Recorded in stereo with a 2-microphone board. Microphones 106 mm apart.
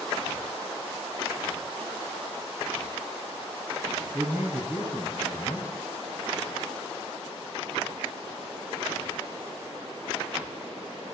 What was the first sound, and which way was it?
A man speaking, 20° right (ahead or behind).